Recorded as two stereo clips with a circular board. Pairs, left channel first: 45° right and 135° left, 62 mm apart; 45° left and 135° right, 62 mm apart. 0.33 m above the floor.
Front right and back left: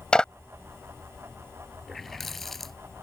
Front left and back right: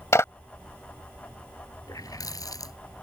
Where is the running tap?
40° left.